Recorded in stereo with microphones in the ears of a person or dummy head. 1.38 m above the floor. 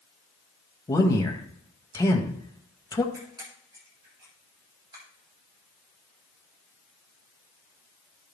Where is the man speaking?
15° left (ahead or behind), 1.9 m.